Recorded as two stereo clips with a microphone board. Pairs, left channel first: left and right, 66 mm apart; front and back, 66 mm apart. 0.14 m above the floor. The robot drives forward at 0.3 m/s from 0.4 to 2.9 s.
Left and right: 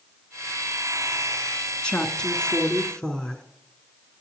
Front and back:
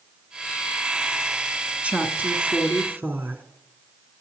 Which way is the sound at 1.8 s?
145° left.